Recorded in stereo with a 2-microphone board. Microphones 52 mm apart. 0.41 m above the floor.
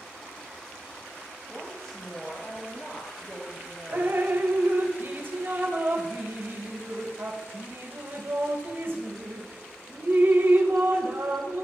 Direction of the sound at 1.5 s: 20° left (ahead or behind).